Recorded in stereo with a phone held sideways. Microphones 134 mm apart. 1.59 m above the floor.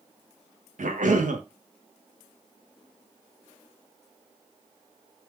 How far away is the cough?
About 0.7 m.